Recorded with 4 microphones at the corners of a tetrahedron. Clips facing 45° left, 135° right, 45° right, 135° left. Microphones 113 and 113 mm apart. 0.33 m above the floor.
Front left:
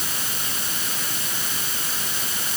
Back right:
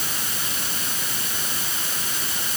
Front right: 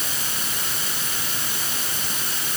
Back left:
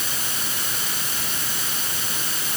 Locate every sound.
Only background noise.